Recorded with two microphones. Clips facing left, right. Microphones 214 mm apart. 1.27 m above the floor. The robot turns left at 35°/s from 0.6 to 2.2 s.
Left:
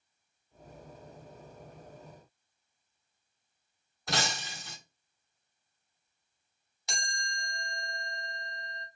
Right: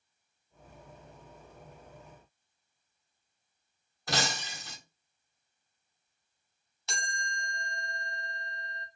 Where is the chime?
15° left (ahead or behind), 0.7 m.